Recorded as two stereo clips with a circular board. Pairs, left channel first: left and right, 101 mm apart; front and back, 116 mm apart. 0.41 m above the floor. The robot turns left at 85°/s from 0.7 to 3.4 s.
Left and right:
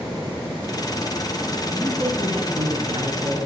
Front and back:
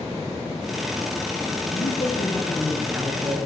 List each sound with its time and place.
1.7 s a man speaking: 5° right, 5.5 m; by 3.4 s 145° right, 5.5 m